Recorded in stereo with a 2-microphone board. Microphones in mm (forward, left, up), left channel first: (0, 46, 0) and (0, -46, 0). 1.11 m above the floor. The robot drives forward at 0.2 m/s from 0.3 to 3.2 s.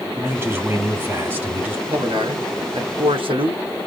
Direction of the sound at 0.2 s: 25° right (ahead or behind).